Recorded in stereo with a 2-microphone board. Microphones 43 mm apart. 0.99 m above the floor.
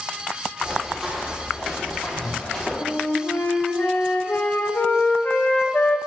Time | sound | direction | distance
0.6 | running footsteps | 10° right (ahead or behind) | 2 m
2.8 | a flute | 60° left (ahead or behind) | 0.7 m